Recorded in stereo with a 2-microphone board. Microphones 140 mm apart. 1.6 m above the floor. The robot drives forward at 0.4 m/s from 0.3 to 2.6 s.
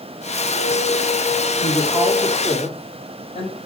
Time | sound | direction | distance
1.6 | a woman speaking | 50° left (ahead or behind) | 4.5 m